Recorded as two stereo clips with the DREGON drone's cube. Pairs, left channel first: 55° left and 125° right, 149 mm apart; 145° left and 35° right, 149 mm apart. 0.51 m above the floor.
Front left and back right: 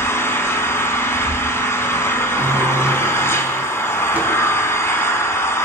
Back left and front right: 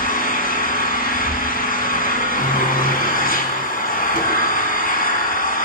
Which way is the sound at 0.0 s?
130° left.